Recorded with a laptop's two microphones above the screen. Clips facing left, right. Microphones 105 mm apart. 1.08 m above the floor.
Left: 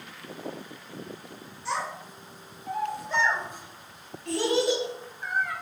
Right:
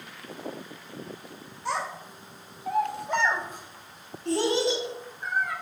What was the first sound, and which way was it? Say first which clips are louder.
A child speaking: right 1 dB; 50° right (ahead or behind).